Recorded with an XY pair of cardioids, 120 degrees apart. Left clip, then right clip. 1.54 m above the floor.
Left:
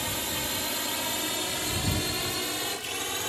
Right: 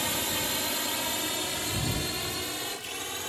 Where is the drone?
10° right; by 3.3 s 20° left.